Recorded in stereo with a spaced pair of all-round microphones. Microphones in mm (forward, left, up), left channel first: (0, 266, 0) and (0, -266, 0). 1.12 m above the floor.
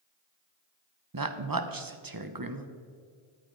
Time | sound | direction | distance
1.1 | a woman speaking | 40° right (ahead or behind) | 0.9 m